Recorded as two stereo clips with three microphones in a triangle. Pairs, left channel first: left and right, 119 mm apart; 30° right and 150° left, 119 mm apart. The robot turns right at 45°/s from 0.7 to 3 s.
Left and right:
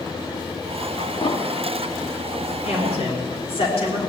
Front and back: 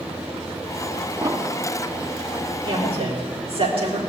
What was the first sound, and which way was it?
An explosion, 100° left.